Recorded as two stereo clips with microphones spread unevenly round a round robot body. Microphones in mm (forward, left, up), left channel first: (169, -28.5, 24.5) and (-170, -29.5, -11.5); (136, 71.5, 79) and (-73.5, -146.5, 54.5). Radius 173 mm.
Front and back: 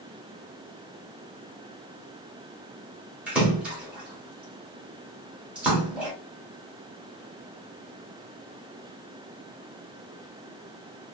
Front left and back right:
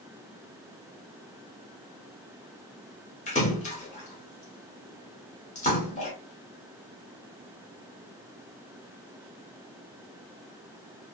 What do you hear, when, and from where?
3.3 s a splash: 105° left, 0.9 m